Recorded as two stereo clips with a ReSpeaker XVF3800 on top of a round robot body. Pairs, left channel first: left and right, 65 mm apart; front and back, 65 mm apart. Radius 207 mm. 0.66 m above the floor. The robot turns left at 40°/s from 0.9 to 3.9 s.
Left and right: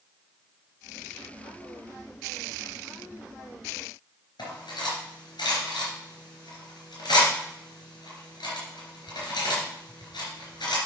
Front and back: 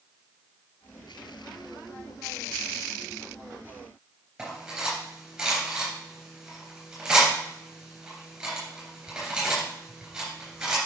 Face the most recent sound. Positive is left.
turn(degrees=95)